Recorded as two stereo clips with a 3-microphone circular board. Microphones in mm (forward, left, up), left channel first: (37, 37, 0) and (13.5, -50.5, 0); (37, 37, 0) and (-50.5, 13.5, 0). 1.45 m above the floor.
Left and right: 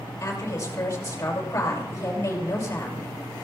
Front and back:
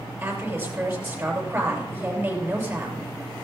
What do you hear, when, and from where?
0.2 s a woman speaking: 135° left, 6 m